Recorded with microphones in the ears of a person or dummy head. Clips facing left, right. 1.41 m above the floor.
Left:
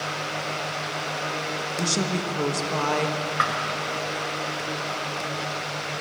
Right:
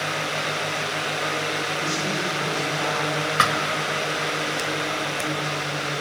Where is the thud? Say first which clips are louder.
Right 4 dB; 50° right (ahead or behind), 1.8 m.